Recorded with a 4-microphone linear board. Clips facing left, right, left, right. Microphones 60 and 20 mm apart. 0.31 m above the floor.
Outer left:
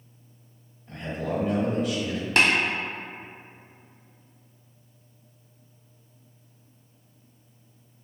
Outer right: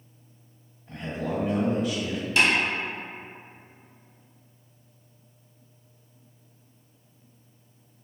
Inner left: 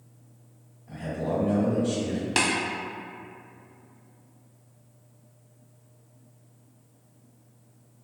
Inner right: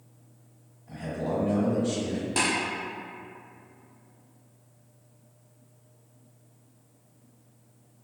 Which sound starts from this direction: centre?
A man speaking, at 0.9 s.